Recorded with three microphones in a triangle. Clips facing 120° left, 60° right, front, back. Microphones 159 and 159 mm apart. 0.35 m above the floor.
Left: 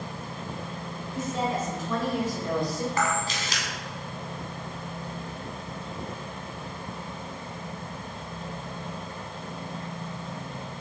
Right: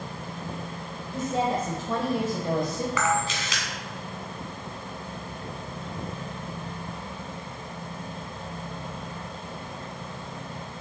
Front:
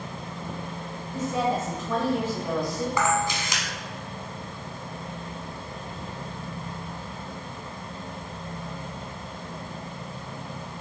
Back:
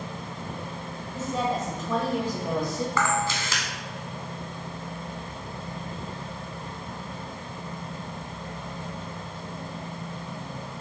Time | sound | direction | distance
1.1 | a woman speaking | 70° right | 1.7 m
3.0 | a camera shutter | 75° left | 1.6 m